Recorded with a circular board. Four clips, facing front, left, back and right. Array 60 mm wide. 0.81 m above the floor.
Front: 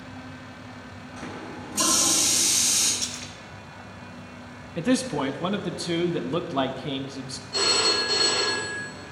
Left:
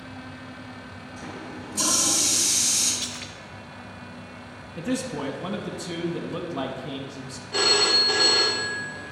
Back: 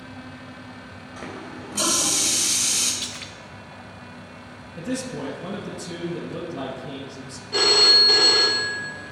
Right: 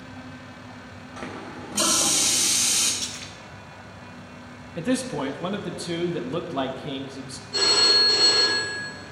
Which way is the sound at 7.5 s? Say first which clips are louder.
Left 1 dB, back 4 dB; 150° left.